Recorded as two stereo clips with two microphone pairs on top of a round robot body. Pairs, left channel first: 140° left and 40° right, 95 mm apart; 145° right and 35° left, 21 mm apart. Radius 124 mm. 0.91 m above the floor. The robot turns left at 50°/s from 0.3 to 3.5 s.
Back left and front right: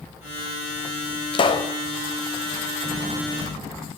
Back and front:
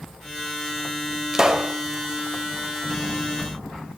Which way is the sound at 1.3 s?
105° left.